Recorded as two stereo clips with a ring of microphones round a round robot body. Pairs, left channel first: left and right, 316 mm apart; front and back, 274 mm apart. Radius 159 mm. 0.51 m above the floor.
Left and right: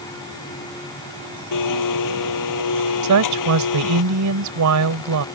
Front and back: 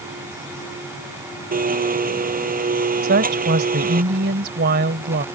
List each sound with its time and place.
1.5 s a blender: 120° left
3.0 s a woman speaking: 120° right